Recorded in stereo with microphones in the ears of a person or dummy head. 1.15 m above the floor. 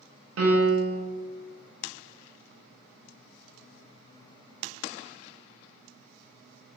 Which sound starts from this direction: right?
A piano, at 0.4 s.